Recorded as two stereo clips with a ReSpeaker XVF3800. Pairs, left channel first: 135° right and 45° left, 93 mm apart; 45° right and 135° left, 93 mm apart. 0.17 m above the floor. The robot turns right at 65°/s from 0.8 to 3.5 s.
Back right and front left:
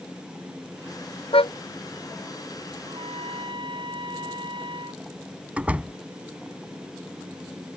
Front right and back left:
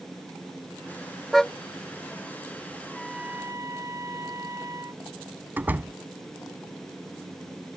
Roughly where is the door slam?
Left.